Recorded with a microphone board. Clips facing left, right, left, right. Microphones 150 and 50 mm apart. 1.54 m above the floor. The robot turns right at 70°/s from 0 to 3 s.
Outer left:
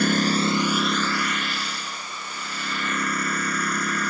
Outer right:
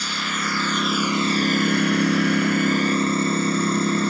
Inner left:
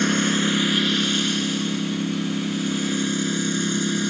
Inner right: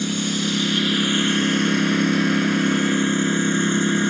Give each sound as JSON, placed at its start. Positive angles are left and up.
{"t": 0.0, "sound": "a lawn mower", "azimuth_deg": 120}